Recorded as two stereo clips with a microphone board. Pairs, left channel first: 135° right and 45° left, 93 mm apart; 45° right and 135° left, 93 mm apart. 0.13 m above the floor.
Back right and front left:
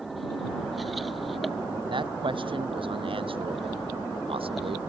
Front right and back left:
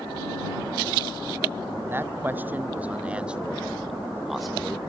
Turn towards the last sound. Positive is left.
turn(degrees=40)